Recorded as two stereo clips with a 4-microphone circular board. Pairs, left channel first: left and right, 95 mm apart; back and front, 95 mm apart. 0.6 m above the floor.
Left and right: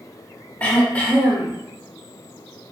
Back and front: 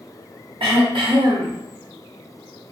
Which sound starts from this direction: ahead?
Throat clearing, at 0.6 s.